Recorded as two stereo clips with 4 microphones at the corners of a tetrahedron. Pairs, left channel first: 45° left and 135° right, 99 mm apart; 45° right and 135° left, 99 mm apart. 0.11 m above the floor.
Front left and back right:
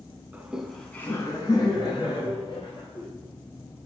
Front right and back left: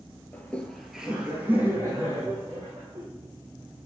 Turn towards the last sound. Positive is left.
turn(degrees=80)